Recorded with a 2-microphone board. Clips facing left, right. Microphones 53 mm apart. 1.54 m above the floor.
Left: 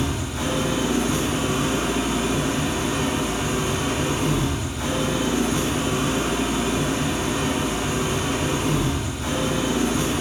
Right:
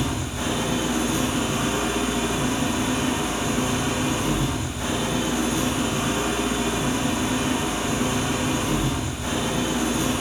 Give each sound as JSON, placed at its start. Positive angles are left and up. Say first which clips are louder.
{"t": 0.0, "sound": "an engine running", "louder": "left 1 dB", "side_deg": 60, "distance_m": 1.6}